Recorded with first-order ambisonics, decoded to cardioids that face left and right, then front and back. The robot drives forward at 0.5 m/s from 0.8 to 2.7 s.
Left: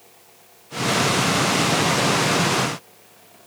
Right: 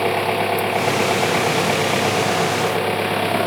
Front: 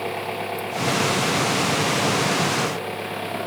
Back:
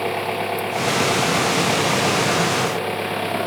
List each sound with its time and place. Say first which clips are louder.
0.0 s an engine running: right 34 dB, back 4 dB; 105° right; by 3.5 s 110° right